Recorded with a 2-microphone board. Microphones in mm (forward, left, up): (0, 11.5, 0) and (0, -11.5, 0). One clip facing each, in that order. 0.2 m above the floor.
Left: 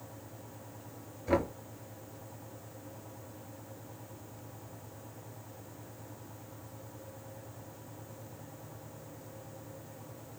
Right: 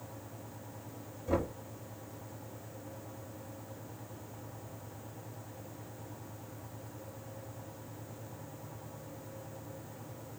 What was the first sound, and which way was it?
Knocking, 50° left (ahead or behind).